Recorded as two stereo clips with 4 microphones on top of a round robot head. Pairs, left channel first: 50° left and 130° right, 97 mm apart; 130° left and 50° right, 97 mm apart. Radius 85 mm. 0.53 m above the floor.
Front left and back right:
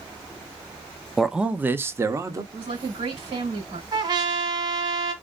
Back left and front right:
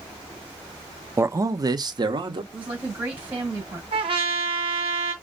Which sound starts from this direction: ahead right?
A man speaking, at 1.2 s.